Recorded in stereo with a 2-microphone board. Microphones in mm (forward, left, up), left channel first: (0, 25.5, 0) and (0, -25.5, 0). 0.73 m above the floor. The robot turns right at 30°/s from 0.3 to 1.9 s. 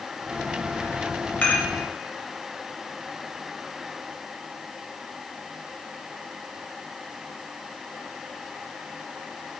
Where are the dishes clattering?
30° left (ahead or behind), 2.5 m; by 1.7 s 25° left (ahead or behind), 2.5 m.